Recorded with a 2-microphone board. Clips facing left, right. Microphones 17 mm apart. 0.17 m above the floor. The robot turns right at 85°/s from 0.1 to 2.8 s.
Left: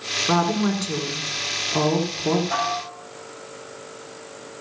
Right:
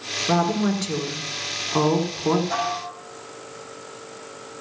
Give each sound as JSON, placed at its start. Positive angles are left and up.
{"t": 0.3, "sound": "a woman speaking", "azimuth_deg": 120, "distance_m": 1.8}
{"t": 2.5, "sound": "dishes clattering", "side_deg": -10, "distance_m": 4.5}